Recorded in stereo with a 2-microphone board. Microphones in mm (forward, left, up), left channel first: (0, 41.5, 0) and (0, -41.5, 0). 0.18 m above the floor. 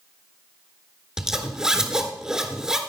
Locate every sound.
1.2 s a zipper: 10° right (ahead or behind), 1.2 m